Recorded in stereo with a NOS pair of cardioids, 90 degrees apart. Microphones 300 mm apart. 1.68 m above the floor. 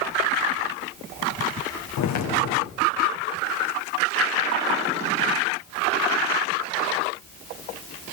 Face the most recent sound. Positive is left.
turn(degrees=70)